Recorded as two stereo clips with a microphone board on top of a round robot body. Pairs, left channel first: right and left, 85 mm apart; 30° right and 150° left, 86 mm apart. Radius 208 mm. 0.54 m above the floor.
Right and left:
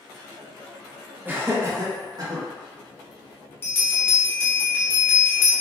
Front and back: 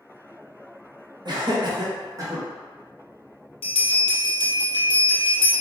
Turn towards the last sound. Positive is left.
turn(degrees=-25)